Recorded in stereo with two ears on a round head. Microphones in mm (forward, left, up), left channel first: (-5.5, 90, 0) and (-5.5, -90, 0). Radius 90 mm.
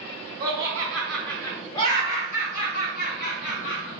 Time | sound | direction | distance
0.4 | laughter | 25° right (ahead or behind) | 1.1 m